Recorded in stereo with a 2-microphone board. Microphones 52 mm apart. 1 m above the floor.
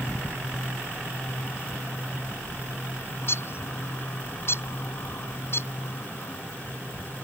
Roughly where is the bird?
Left.